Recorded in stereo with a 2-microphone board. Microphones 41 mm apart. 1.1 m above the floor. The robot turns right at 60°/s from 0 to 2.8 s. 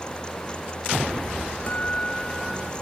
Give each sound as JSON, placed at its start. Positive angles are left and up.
{"t": 1.7, "sound": "a guitar", "azimuth_deg": 135}